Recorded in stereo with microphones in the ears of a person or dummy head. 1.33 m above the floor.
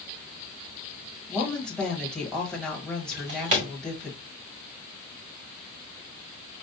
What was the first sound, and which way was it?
A woman speaking, 5° left (ahead or behind).